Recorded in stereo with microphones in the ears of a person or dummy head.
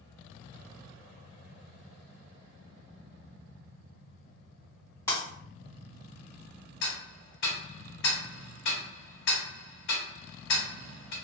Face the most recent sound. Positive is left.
turn(degrees=65)  # may be behind; listen again after turning